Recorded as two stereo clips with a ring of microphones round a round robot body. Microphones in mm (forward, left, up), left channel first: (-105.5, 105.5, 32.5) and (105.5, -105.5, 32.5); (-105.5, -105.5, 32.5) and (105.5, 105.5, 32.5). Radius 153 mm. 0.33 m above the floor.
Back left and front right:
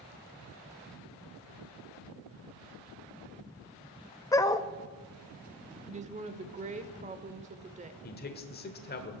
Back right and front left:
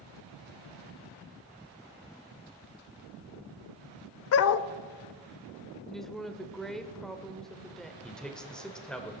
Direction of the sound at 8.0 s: 140° left.